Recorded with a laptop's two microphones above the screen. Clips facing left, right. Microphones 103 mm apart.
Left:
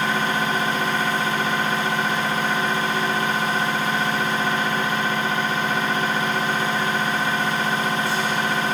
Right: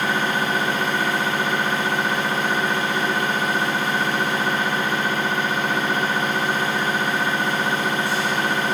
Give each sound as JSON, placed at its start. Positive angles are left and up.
{"t": 0.0, "sound": "a machine running", "side_deg": -60, "distance_m": 1.1}